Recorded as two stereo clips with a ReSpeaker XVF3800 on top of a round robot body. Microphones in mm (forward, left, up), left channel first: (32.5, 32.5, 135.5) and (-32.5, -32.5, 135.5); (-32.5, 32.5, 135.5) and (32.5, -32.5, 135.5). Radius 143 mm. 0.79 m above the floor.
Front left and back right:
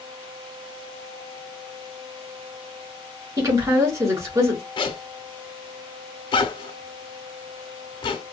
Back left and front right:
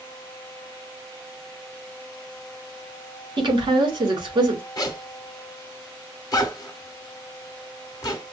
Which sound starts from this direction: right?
A woman speaking, at 3.4 s.